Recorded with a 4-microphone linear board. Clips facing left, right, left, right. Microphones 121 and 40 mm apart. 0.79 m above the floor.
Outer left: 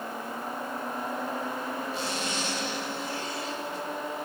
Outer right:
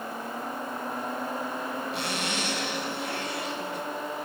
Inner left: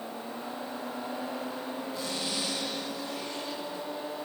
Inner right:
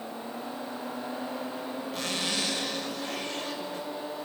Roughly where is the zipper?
Right.